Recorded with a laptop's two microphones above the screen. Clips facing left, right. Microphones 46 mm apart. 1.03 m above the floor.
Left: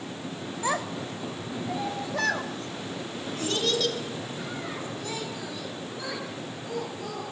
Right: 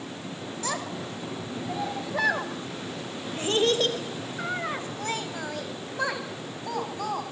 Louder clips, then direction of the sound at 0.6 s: Left 4 dB; 20° left (ahead or behind).